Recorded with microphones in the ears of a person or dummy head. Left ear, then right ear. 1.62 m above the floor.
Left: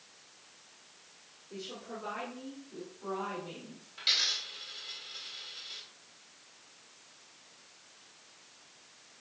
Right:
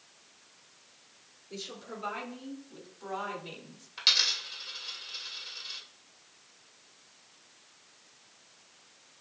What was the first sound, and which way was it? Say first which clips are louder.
A woman speaking: right 1 dB; 60° right (ahead or behind).